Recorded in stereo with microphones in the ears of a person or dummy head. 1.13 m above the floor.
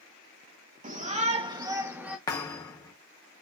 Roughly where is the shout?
Right.